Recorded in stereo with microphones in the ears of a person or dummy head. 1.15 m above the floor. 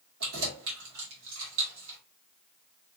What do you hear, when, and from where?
0.2 s keys jangling: 85° right, 2.5 m